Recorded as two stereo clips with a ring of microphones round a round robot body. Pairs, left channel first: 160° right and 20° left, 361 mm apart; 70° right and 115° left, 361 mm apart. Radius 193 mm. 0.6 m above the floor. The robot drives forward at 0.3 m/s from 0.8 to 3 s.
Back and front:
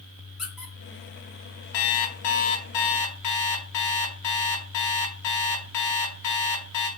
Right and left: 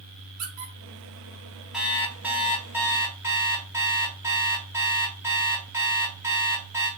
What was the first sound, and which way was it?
A squeak, 110° left.